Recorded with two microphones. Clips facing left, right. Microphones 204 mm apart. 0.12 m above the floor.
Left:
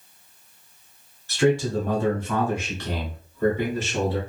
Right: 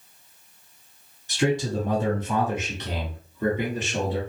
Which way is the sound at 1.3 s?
20° right (ahead or behind).